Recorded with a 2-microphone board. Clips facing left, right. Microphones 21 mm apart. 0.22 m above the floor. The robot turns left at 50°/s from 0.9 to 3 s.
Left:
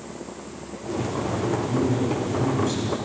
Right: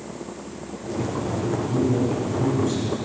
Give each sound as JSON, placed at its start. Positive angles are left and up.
{"t": 1.7, "sound": "a man speaking", "side_deg": 10, "distance_m": 1.5}